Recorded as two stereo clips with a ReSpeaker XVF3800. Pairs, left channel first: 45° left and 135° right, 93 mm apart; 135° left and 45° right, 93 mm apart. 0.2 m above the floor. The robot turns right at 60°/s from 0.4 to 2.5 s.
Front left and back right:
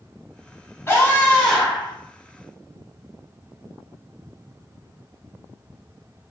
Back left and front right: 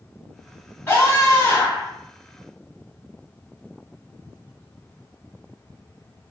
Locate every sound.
0.9 s a scream: 90° left, 1.6 m; by 1.9 s 150° left, 1.6 m